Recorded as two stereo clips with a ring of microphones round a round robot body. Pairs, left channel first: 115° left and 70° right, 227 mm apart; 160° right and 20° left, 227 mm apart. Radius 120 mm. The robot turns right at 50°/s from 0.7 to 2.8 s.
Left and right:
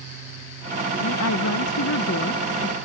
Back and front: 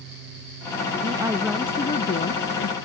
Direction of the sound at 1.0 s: 85° left.